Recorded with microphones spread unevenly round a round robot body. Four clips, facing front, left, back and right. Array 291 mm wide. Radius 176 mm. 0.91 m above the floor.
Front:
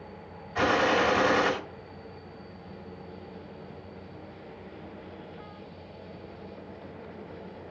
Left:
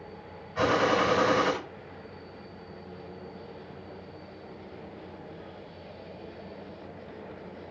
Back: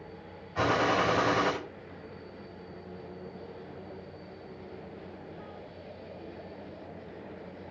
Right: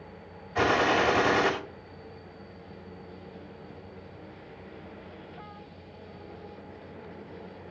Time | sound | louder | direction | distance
0.6 | a gunshot | even, front 2 dB | 90° right | 5.5 m